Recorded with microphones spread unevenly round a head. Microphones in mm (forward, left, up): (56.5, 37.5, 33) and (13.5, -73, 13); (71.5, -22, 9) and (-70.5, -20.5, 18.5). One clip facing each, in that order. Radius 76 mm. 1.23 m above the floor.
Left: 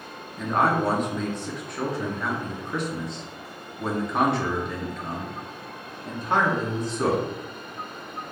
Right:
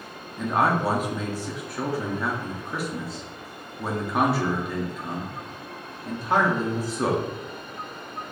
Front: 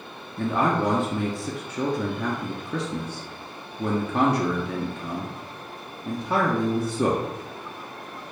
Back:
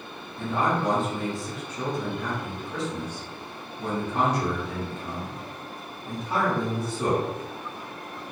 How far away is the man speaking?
About 0.5 m.